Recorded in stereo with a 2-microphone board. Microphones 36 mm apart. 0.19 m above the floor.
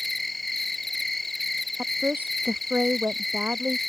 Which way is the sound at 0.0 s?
5° left (ahead or behind).